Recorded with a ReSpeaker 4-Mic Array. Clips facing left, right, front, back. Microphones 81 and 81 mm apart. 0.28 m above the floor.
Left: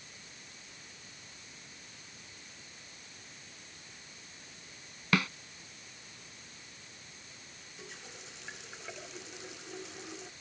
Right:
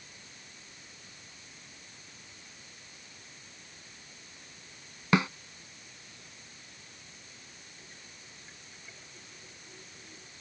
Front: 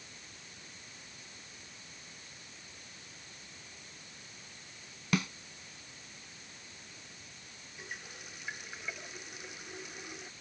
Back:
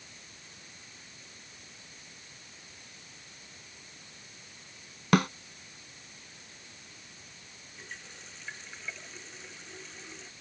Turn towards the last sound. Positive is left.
turn(degrees=80)